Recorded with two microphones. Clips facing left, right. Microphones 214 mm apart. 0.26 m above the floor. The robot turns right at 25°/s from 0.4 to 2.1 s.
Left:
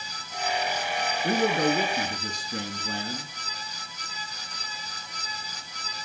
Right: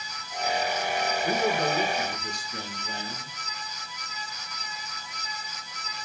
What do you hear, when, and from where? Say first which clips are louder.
1.2 s a man speaking: left 4 dB; 50° left (ahead or behind), 2.5 m; by 3.3 s 65° left (ahead or behind), 2.5 m